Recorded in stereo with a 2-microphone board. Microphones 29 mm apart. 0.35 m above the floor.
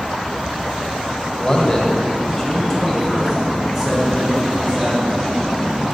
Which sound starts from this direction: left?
A man speaking, at 1.4 s.